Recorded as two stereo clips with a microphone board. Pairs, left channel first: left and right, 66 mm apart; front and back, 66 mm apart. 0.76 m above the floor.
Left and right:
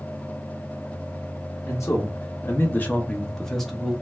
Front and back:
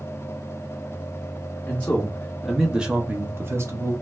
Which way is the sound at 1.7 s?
60° left.